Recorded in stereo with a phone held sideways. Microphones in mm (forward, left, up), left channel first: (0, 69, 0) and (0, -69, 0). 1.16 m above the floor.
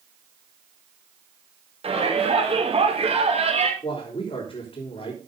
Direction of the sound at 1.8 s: 45° right (ahead or behind).